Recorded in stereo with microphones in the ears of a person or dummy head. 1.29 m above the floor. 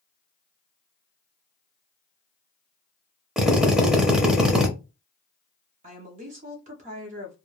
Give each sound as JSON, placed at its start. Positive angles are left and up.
{"t": 3.4, "sound": "a drill", "side_deg": -5, "distance_m": 0.6}
{"t": 5.8, "sound": "a woman speaking", "side_deg": -35, "distance_m": 0.6}